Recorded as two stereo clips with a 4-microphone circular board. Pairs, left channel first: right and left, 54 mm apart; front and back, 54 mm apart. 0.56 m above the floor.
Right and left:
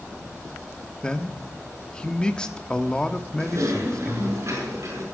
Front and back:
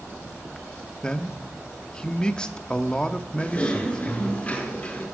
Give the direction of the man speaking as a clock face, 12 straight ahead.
1 o'clock.